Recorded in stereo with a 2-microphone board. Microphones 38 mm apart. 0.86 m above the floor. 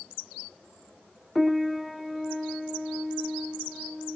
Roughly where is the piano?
Centre.